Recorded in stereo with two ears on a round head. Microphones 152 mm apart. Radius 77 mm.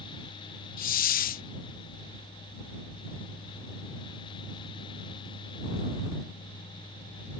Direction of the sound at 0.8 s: 55° left (ahead or behind).